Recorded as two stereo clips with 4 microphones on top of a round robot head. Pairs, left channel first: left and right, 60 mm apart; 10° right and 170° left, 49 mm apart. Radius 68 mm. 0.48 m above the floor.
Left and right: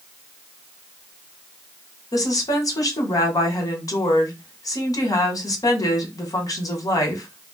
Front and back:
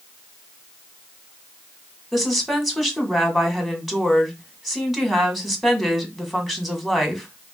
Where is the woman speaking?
85° left, 1.6 m.